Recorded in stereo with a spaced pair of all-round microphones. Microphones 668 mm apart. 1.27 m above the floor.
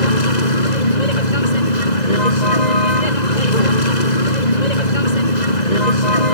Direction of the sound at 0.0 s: 75° left (ahead or behind).